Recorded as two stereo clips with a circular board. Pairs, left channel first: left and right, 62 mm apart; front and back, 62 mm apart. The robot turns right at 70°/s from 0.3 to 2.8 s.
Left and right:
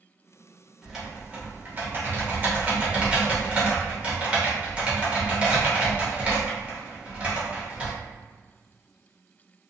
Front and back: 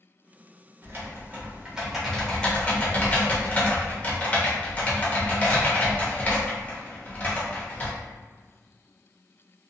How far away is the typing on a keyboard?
About 0.8 m.